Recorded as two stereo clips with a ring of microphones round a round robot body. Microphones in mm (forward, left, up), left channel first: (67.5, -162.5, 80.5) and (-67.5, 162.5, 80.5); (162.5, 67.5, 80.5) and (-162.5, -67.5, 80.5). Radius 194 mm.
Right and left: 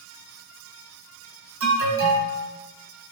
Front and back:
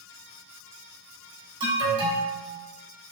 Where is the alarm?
130° left, 2 m.